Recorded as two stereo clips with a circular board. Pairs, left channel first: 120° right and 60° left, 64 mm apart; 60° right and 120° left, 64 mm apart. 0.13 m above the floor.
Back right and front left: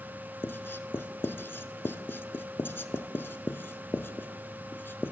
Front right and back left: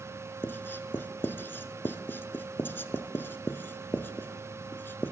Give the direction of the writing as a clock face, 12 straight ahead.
3 o'clock.